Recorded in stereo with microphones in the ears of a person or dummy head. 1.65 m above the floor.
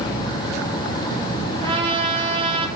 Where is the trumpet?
25° right (ahead or behind), 0.6 m.